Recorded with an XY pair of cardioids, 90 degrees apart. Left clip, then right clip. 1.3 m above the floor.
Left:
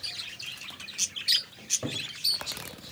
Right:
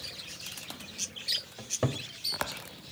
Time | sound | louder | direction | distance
1.6 | a cupboard door | left 2 dB | 60° right | 3 m